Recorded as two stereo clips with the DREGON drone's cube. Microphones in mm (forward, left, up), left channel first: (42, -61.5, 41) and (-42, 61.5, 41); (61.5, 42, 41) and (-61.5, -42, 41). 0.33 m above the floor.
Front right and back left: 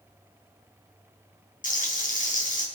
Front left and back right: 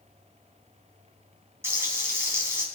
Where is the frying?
75° right, 4 m.